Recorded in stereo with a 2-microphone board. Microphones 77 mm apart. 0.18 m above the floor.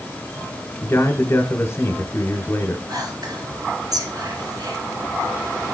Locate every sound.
0.8 s a man speaking: 25° left (ahead or behind), 1.5 m
2.9 s whispering: 55° right (ahead or behind), 3 m